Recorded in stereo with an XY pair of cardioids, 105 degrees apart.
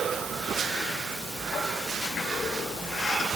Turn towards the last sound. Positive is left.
No sound to turn to.